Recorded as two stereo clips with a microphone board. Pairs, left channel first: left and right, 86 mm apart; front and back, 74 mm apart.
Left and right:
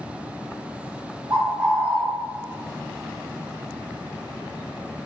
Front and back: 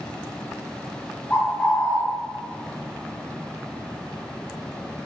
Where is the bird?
60° right, 1.1 m.